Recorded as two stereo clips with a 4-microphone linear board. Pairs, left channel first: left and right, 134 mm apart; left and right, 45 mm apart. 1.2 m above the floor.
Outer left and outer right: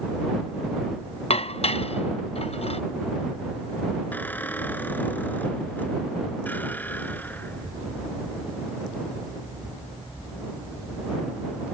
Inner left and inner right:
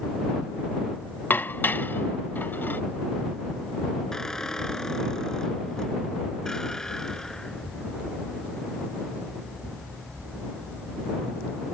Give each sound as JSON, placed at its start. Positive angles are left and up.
{"t": 1.3, "sound": "dishes clattering", "side_deg": 50}
{"t": 4.1, "sound": "a squeak", "side_deg": 15}